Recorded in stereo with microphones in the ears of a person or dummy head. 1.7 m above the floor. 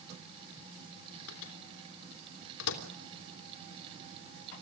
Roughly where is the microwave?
Left.